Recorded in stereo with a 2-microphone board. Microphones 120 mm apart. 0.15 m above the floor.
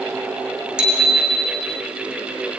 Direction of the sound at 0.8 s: 10° right (ahead or behind).